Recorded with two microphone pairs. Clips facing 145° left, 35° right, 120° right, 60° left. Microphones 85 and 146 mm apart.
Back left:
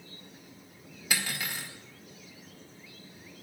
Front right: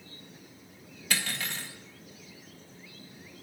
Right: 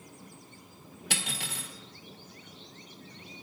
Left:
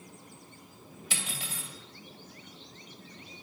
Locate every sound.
1.1 s cutlery clinking: 135° right, 1.6 m